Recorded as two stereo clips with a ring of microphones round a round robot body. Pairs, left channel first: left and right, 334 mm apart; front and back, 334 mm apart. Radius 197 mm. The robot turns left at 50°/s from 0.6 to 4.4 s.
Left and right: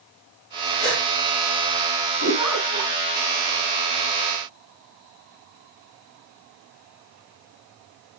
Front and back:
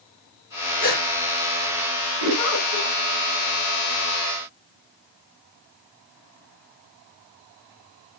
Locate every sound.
0.8 s a gasp: 30° left, 5.5 m; by 1.0 s 20° left, 5.5 m
2.2 s a giggle: 35° right, 8 m; by 2.9 s 70° right, 8 m